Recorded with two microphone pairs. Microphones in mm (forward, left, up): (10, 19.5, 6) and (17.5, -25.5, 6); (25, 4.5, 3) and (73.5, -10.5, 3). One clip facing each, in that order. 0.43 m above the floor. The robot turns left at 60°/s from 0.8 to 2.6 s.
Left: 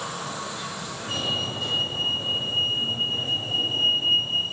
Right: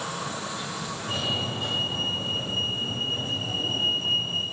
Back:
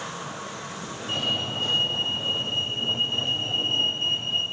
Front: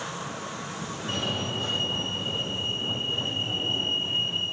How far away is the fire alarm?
About 9.5 m.